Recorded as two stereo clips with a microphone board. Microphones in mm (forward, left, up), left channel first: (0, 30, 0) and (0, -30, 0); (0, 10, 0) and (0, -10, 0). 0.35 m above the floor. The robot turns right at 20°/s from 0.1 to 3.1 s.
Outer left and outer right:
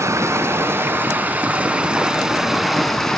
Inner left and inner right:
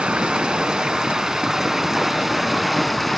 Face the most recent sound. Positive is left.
turn(degrees=5)